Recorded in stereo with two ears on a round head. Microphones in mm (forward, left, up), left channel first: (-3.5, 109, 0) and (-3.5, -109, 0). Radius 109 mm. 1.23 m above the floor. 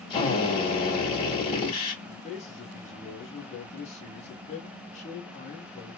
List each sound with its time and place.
0.1 s a drill: 25° left (ahead or behind), 1.8 m
2.0 s a man speaking: 30° left (ahead or behind), 0.9 m